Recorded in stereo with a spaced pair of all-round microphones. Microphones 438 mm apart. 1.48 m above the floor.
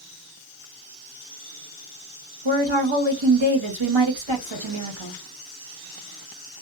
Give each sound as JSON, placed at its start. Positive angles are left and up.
{"t": 2.5, "sound": "a woman speaking", "side_deg": -80, "distance_m": 1.3}